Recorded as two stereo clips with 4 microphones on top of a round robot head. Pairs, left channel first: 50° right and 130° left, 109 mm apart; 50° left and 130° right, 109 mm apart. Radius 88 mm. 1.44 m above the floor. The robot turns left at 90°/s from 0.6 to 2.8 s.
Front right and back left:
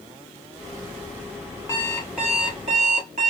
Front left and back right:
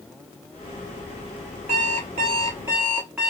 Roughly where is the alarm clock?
Right.